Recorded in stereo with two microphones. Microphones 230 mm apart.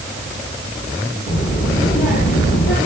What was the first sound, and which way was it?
A child speaking, 55° left (ahead or behind).